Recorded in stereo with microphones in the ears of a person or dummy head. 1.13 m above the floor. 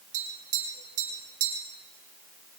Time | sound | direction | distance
0.1 | tapping | 50° right (ahead or behind) | 7 m